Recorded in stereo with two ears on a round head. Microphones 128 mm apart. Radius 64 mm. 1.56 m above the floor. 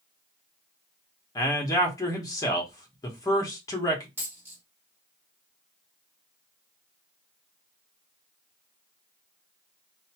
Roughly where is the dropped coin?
Centre.